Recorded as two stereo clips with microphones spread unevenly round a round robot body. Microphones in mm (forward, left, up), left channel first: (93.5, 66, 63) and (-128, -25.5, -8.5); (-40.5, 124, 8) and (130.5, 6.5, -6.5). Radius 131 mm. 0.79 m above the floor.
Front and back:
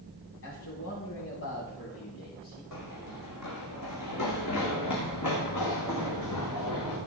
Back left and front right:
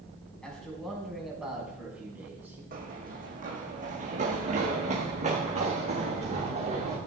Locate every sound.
0.4 s a man speaking: 60° left, 6 m; by 2.6 s 45° left, 6.5 m
2.7 s running footsteps: 15° left, 3 m; by 7.0 s 25° left, 6 m